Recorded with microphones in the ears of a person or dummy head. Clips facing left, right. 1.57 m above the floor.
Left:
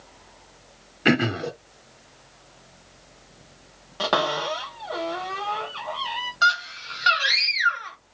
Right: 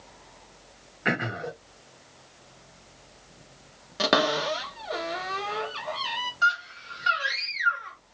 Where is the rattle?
I don't hear a rattle.